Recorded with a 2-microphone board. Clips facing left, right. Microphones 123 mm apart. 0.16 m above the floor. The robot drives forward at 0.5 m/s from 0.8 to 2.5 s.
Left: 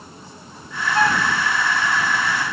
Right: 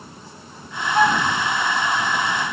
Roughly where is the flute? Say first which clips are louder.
Right 2 dB; centre.